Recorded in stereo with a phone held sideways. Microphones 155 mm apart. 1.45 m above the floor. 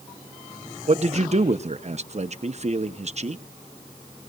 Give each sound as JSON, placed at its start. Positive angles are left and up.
{"t": 0.9, "sound": "a man speaking", "side_deg": -45, "distance_m": 0.8}